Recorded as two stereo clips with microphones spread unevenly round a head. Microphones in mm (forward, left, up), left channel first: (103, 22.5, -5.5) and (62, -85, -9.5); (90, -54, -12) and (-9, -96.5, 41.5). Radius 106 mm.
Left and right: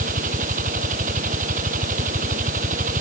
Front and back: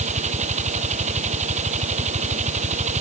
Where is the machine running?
155° right.